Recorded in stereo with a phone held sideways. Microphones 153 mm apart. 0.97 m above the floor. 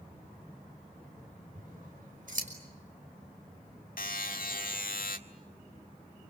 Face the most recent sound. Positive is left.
turn(degrees=70)  # may be behind; listen again after turning